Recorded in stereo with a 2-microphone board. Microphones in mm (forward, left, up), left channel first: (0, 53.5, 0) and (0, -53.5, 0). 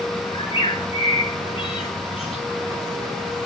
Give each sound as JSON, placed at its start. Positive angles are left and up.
{"t": 0.3, "sound": "a bird", "side_deg": 55, "distance_m": 6.0}